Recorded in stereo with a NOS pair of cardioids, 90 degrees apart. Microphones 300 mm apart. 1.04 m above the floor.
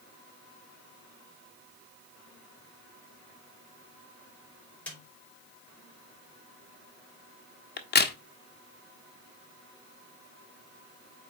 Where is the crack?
35° left, 1.2 m.